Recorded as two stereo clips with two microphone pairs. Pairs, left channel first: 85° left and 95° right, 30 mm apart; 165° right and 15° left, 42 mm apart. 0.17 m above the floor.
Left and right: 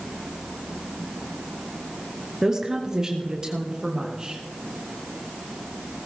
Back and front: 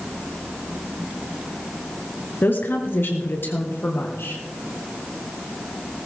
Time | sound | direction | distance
2.4 | a woman speaking | 165° right | 2 m